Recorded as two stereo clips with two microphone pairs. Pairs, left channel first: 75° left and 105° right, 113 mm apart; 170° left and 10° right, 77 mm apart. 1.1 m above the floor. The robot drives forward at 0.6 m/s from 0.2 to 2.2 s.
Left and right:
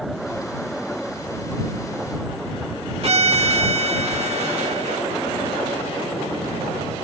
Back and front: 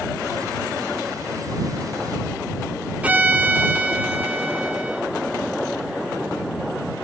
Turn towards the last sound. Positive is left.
turn(degrees=-80)